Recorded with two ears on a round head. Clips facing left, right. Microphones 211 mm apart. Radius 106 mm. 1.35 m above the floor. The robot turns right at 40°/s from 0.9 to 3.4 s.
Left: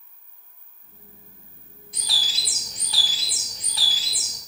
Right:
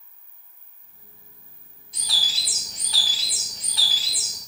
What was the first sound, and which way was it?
A bird, 40° left.